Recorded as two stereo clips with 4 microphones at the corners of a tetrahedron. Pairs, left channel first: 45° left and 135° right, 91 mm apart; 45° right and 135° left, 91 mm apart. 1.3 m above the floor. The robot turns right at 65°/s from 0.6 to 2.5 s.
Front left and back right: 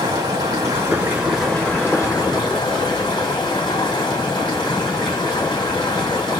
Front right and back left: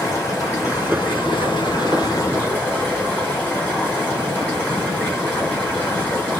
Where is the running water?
100° right, 2.5 m; by 6.4 s 20° left, 2.5 m.